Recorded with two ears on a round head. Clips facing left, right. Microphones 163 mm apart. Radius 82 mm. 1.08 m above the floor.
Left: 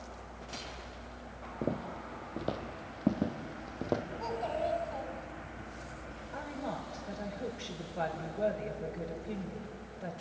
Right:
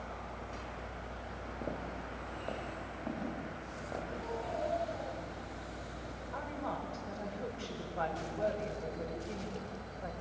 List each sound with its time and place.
1.6 s footsteps: 35° left (ahead or behind), 2 m; by 4.0 s 60° left (ahead or behind), 2.5 m
4.2 s a child speaking: 80° left, 3.5 m
6.3 s a woman speaking: 15° left (ahead or behind), 4.5 m